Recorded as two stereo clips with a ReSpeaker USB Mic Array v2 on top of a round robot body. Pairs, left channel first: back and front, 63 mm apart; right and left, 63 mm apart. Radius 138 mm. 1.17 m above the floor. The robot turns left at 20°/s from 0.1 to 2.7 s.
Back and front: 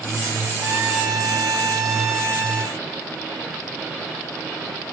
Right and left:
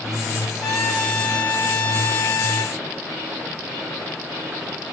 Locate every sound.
0.6 s a trumpet: 70° right, 6.5 m; by 2.8 s 115° right, 6.5 m